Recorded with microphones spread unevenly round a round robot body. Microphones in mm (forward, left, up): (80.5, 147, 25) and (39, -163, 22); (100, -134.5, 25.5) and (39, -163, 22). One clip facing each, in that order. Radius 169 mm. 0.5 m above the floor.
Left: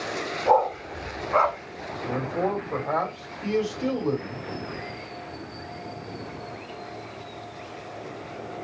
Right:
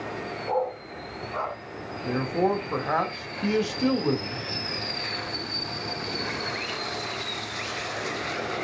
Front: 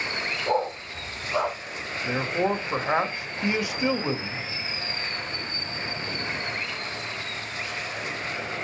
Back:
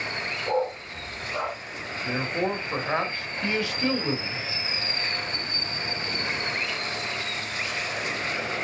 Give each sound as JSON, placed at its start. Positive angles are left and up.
{"t": 0.5, "sound": "a dog barking", "azimuth_deg": 110, "distance_m": 0.9}
{"t": 2.0, "sound": "a man speaking", "azimuth_deg": -45, "distance_m": 2.5}